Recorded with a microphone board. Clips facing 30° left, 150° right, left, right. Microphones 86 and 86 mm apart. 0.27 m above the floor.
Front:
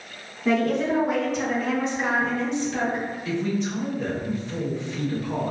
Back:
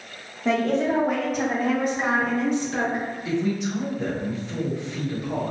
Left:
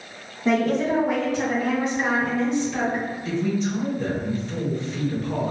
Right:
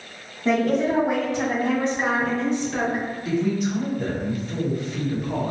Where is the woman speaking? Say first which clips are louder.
Even, even; 175° left, 1.1 m; by 3.0 s 130° right, 2.5 m.